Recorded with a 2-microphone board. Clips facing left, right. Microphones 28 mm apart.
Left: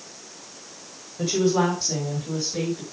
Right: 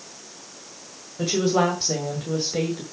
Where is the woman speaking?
15° right (ahead or behind), 1.7 m; by 2.8 s 55° right (ahead or behind), 1.9 m.